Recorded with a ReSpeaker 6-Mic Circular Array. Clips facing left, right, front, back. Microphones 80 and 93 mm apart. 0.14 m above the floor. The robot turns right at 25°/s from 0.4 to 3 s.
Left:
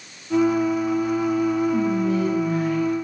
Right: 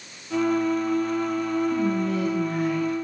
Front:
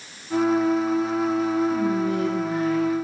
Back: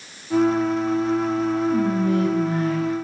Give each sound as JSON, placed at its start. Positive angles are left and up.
{"t": 1.7, "sound": "whispering", "azimuth_deg": 160, "distance_m": 4.5}